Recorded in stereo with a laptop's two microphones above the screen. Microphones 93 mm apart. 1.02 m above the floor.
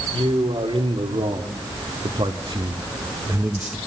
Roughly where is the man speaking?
Right.